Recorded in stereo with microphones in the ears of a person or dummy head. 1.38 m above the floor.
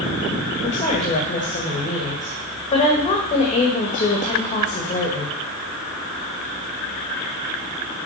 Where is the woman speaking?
35° left (ahead or behind), 2 m.